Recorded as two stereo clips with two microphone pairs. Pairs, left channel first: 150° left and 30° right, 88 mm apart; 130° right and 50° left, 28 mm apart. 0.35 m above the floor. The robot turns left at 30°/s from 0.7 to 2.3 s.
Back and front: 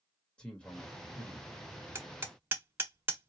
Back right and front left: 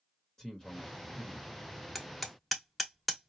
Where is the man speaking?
155° right, 1.4 m; by 1.5 s straight behind, 1.4 m.